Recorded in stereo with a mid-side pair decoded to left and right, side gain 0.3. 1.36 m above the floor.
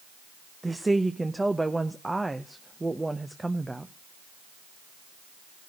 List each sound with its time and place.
0.6 s a woman speaking: 20° right, 0.9 m